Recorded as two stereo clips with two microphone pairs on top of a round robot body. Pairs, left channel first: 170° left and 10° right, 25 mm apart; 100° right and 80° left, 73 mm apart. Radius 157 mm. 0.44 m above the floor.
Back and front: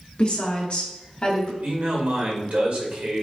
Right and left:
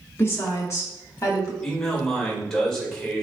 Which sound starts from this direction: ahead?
A man speaking, at 1.6 s.